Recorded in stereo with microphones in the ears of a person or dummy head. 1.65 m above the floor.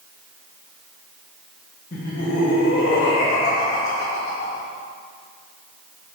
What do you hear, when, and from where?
1.9 s laughter: 50° left (ahead or behind), 1.3 m; by 4.7 s 40° left (ahead or behind), 1.4 m